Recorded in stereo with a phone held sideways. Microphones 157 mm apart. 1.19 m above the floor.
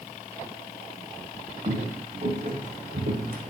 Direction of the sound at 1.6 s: 35° right (ahead or behind).